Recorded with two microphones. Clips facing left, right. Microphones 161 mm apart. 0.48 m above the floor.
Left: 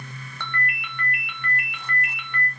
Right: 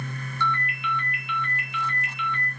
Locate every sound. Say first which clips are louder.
0.4 s a ringtone: right 3 dB; 50° left (ahead or behind), 0.7 m